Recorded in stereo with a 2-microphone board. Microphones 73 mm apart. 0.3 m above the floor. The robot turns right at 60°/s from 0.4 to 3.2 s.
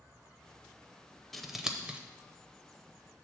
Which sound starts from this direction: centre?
Scissors, at 1.3 s.